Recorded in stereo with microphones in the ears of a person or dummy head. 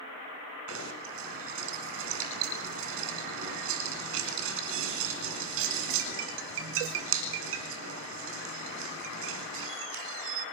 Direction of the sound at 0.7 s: 70° right (ahead or behind).